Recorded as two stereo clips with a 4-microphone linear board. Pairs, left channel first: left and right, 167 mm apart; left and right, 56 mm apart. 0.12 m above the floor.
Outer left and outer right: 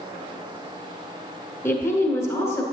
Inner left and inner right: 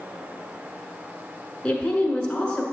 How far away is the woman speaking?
About 1.0 m.